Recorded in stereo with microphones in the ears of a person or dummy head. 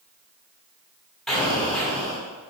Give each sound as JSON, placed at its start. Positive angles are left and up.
{"t": 1.3, "sound": "an explosion", "side_deg": 0, "distance_m": 3.5}